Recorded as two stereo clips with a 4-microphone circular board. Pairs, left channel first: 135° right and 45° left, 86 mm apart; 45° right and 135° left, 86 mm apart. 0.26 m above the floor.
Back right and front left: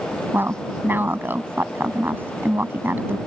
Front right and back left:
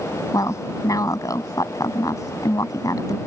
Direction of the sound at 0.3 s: 15° right.